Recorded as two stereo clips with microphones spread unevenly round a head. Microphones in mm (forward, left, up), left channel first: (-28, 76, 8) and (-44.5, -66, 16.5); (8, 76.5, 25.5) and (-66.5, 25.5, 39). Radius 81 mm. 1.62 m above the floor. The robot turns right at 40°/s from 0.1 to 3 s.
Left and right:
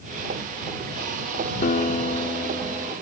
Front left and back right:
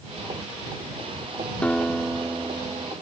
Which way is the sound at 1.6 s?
110° left.